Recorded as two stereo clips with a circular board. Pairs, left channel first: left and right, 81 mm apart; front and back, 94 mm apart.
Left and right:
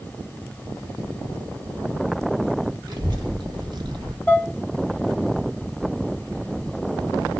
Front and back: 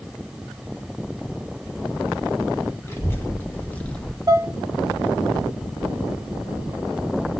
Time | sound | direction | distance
2.9 | a child speaking | 65° right | 1.1 m
4.3 | dishes clattering | 145° left | 0.5 m